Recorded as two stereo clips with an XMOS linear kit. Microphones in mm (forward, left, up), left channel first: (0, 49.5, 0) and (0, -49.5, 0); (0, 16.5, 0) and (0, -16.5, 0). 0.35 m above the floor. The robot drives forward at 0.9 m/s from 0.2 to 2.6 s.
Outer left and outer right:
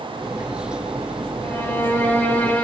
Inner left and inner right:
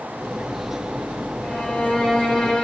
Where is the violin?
25° left (ahead or behind), 1.6 m; by 2.6 s 15° left (ahead or behind), 2.5 m.